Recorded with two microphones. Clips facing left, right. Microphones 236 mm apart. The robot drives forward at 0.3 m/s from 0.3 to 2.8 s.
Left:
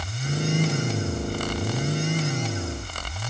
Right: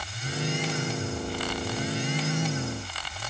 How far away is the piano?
I don't hear a piano.